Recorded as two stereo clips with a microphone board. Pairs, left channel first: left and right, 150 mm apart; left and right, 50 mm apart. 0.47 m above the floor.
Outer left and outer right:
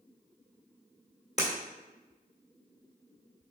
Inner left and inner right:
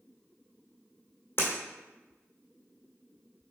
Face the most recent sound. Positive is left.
turn(degrees=45)  # may be behind; listen again after turning